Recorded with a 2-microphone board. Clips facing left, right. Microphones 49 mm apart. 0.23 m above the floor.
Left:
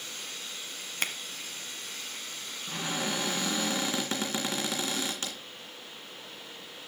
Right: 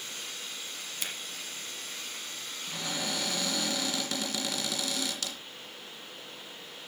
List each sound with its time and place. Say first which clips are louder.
1.0 s a finger snap: left 6 dB; 55° left (ahead or behind), 1.2 m
2.7 s a cupboard door: left 3 dB; 30° left (ahead or behind), 2.5 m